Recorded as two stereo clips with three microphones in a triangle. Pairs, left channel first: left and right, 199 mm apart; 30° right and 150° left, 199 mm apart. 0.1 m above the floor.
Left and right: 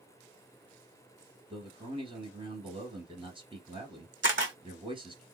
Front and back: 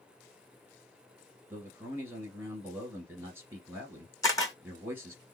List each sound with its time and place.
1.5 s a man speaking: 140° right, 1.9 m
4.2 s a camera shutter: 105° right, 0.9 m